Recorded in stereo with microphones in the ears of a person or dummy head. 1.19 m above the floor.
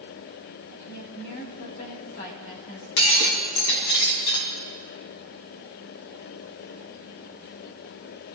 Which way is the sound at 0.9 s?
55° left (ahead or behind).